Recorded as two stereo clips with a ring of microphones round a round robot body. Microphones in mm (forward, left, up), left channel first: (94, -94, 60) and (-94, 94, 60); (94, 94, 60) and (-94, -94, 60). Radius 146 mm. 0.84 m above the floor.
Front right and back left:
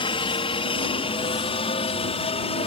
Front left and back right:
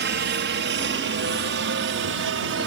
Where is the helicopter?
110° right.